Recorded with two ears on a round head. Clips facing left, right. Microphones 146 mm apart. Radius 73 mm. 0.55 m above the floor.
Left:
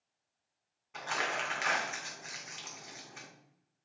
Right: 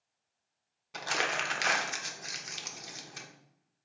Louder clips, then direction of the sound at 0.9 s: Right 2 dB; 40° right (ahead or behind).